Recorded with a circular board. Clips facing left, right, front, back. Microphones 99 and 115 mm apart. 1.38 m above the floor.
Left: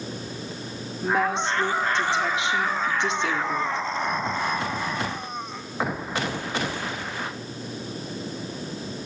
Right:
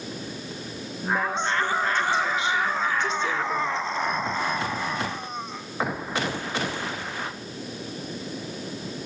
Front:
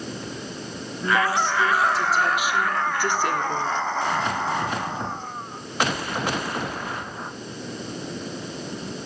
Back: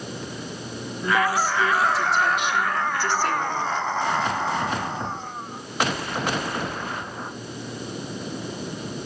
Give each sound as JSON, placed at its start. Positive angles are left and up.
{"t": 1.0, "sound": "a woman speaking", "azimuth_deg": 100, "distance_m": 5.0}